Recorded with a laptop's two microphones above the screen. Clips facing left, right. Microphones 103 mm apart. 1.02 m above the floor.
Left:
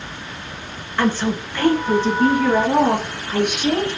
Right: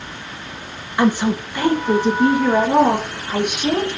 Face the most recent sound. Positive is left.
turn(degrees=-5)  # may be behind; listen again after turning